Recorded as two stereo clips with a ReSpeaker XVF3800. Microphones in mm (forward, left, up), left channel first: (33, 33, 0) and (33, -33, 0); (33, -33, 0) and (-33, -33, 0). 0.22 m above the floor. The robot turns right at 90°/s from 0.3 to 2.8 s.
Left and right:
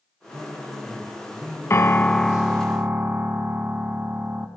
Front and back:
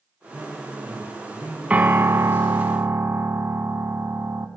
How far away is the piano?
About 0.8 m.